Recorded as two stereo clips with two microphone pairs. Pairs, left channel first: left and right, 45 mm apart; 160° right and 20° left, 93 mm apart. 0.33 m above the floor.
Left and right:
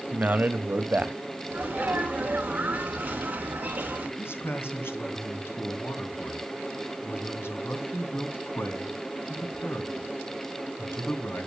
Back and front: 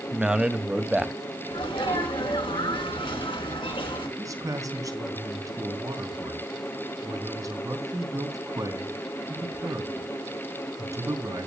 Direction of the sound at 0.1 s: 60° right.